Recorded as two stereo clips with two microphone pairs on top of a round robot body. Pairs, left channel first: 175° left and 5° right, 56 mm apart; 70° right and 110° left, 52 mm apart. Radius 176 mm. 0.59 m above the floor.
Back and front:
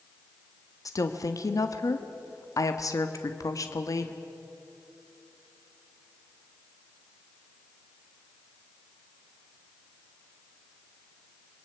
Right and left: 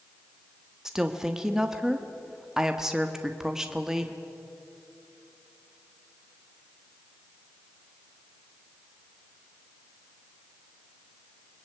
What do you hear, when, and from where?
0.8 s a woman speaking: 165° right, 1.6 m